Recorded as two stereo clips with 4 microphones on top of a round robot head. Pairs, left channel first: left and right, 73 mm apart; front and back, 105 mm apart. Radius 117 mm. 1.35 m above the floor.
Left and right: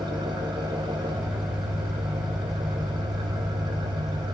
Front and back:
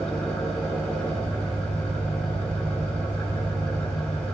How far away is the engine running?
About 1.4 m.